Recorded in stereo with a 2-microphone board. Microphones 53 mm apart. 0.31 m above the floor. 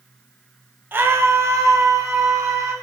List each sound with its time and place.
0.9 s a scream: 40° right (ahead or behind), 1.3 m; by 2.7 s 70° right (ahead or behind), 3 m